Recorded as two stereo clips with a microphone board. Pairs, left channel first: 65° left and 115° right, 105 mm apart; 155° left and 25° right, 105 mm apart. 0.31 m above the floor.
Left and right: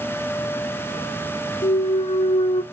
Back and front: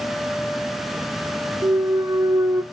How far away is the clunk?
About 0.5 m.